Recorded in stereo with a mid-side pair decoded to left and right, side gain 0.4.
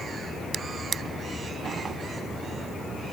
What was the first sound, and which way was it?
A drawer, 55° right.